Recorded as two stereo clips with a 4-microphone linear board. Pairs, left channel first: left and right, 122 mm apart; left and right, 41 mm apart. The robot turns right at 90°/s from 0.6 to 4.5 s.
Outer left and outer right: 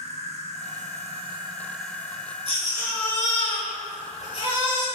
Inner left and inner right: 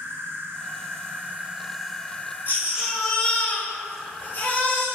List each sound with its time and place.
0.0 s an insect: 110° right, 1.5 m; by 5.0 s 120° right, 1.5 m
2.5 s a baby crying: 45° right, 3 m; by 4.9 s 140° left, 3 m